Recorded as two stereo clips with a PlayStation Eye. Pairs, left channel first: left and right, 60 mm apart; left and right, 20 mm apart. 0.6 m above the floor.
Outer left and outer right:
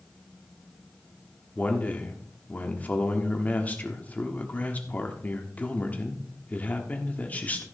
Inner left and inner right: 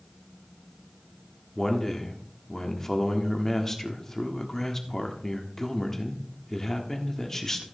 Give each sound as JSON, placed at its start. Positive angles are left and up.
{"t": 1.6, "sound": "a man speaking", "side_deg": 25, "distance_m": 1.3}